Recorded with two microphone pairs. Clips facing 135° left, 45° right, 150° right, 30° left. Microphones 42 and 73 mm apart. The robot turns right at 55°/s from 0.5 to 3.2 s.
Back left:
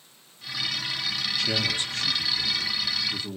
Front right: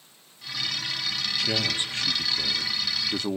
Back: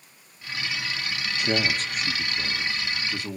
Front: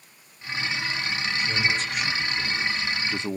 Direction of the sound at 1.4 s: 135° right.